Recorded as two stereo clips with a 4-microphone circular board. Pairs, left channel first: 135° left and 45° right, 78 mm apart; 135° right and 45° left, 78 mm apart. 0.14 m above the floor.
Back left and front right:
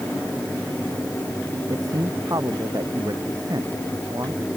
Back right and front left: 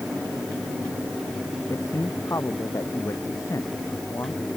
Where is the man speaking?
85° right.